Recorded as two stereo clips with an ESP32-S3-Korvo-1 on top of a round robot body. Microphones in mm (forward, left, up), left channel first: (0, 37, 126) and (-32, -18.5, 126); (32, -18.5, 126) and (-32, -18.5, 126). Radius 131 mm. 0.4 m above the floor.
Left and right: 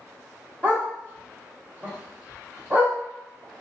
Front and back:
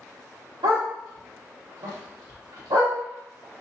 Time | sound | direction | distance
0.6 | a dog barking | 175° left | 1.4 m